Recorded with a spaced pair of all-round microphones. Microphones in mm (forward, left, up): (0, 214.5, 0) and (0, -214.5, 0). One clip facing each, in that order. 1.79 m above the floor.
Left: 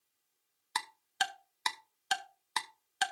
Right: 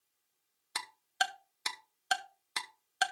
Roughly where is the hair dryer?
I don't hear a hair dryer.